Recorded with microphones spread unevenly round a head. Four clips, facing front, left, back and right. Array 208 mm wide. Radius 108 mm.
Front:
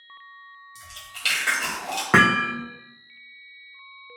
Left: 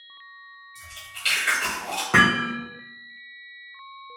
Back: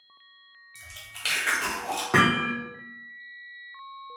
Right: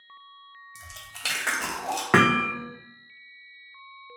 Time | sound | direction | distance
0.8 | chewing | 90° right | 0.7 m
2.1 | hammering | 45° right | 0.5 m